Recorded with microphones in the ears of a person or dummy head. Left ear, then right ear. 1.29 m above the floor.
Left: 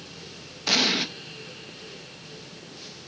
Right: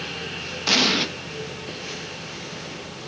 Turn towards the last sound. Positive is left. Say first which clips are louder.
# right 3 dB
turn(degrees=-5)  # may be behind; listen again after turning